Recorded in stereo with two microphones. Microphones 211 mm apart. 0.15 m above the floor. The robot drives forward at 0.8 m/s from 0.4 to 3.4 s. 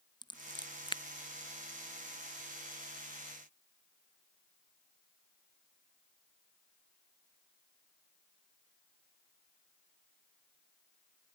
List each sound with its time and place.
0.2 s scissors: 20° left (ahead or behind)